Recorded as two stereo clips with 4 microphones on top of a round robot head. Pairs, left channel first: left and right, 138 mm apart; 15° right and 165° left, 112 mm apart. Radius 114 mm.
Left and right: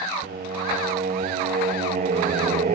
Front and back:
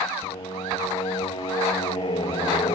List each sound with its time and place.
0.2 s singing: 60° right, 0.9 m